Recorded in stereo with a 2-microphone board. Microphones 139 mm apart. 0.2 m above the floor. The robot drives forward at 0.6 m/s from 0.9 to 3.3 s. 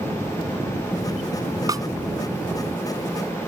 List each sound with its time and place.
1.7 s a snare drum: 25° right (ahead or behind); by 1.9 s 30° right (ahead or behind)